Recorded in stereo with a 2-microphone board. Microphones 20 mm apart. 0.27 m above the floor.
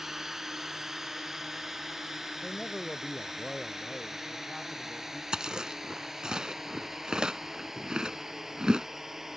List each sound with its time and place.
0.0 s a drone: 20° right (ahead or behind)
2.4 s a man speaking: 15° left (ahead or behind)
5.3 s chewing: 40° right (ahead or behind)